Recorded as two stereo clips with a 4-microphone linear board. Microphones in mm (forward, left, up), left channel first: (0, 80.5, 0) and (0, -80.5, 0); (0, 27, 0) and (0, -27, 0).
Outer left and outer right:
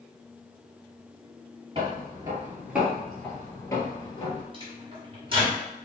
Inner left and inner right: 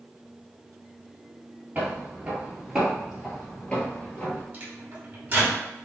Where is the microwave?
35° right (ahead or behind), 1.4 m.